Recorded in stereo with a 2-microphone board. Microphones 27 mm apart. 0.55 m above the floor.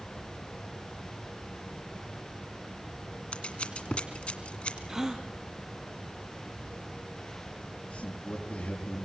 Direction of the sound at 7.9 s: 50° left (ahead or behind).